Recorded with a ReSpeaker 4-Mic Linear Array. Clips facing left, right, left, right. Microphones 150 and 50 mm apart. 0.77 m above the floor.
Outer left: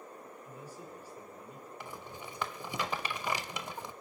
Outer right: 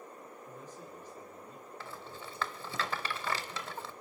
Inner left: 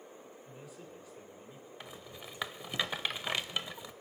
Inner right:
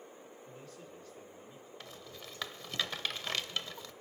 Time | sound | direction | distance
0.5 | a man speaking | 10° left (ahead or behind) | 2.5 m
1.8 | a rattle | 15° left (ahead or behind) | 0.6 m